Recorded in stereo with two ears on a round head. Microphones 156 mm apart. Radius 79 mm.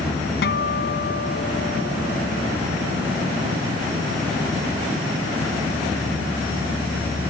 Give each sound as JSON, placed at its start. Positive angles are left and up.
{"t": 0.4, "sound": "a guitar", "side_deg": 60}